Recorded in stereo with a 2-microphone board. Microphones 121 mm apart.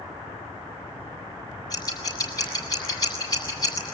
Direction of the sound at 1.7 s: 30° left (ahead or behind).